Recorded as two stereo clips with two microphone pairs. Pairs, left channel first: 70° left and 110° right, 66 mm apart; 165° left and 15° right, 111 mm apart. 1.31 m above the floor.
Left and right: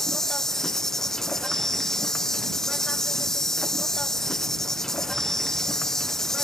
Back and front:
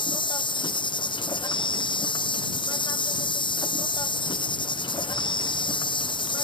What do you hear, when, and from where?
0.0 s an insect: 155° left